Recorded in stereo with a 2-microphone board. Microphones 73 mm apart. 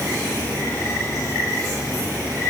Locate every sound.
Only background noise.